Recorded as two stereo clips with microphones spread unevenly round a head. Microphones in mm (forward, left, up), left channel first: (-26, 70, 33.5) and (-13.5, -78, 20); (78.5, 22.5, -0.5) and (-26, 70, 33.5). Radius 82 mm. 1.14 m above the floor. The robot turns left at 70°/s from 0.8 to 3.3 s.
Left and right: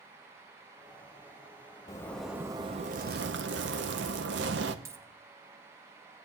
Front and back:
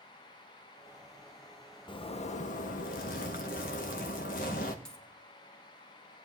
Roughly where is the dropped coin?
Behind right.